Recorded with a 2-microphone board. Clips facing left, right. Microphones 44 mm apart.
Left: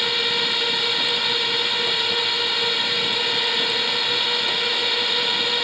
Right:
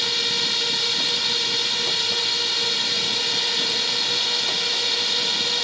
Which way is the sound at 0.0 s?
20° left (ahead or behind).